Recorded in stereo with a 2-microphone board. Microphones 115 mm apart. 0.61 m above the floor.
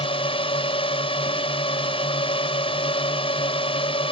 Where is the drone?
50° left (ahead or behind).